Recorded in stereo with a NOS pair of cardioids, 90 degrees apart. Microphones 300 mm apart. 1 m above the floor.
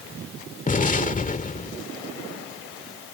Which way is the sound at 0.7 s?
25° left.